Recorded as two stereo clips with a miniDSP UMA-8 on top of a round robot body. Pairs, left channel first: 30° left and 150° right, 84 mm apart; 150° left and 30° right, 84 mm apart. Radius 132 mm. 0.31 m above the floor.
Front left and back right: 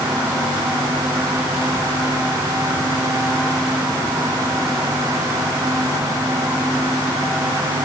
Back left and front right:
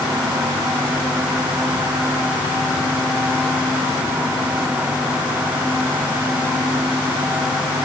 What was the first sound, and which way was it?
Only background noise.